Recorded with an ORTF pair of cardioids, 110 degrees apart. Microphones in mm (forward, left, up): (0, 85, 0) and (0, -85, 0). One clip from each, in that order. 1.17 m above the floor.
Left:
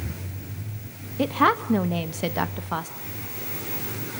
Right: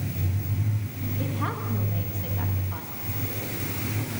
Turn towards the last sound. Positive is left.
turn(degrees=70)